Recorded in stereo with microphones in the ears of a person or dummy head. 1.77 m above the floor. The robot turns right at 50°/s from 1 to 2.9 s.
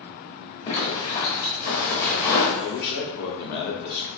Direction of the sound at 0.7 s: 35° left.